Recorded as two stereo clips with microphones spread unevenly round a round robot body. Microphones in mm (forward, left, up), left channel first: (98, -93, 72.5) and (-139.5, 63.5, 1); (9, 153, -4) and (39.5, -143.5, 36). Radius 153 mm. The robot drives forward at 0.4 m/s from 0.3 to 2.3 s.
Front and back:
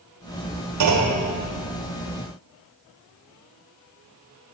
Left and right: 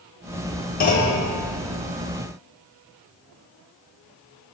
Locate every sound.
0.8 s a clunk: 155° left, 1.2 m; by 1.2 s 160° left, 1.3 m